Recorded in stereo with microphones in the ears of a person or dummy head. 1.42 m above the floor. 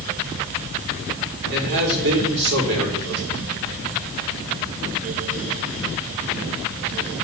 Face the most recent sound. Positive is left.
turn(degrees=-60)  # may be behind; listen again after turning